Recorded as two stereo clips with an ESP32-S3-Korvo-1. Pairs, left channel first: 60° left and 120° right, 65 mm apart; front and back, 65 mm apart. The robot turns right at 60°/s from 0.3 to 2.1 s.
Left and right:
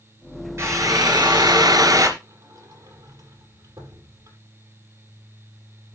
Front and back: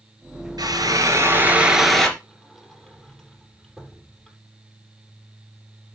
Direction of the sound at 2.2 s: 75° right.